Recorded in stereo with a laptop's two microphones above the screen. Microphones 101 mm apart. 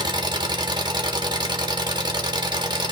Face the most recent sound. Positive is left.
turn(degrees=-45)  # may be behind; listen again after turning